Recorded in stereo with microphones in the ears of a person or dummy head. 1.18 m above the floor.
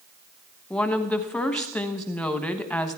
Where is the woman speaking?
Centre (ahead or behind), 1.0 m.